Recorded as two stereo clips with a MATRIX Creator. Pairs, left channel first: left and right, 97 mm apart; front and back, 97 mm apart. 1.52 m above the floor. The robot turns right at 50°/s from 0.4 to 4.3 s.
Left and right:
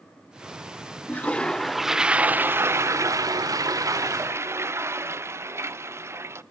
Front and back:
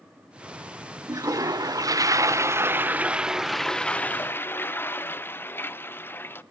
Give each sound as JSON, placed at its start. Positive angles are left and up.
{"t": 1.1, "sound": "a toilet flushing", "azimuth_deg": 150, "distance_m": 0.6}